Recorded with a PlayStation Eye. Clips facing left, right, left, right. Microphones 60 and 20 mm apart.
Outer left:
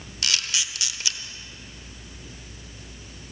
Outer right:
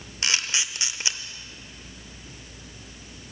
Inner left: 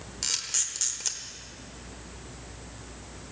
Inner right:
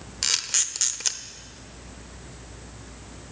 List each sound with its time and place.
0.2 s a camera shutter: 30° right (ahead or behind), 0.8 m